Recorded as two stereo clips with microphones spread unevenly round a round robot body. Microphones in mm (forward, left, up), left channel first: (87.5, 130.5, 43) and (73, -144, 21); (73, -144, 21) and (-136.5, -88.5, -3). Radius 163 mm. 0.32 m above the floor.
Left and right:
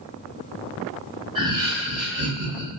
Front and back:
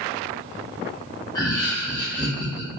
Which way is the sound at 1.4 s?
80° right.